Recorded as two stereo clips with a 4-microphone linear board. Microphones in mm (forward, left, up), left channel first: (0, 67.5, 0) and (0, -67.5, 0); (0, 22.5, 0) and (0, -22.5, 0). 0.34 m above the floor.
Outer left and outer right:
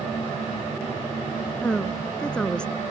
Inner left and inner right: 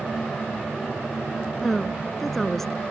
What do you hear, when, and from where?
1.6 s a woman speaking: 10° left (ahead or behind)